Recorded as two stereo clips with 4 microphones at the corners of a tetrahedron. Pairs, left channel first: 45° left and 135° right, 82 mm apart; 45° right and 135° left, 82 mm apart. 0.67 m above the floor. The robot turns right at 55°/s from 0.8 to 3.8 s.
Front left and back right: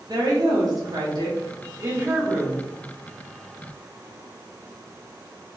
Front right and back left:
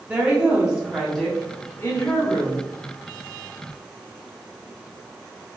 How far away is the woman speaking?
About 1.1 m.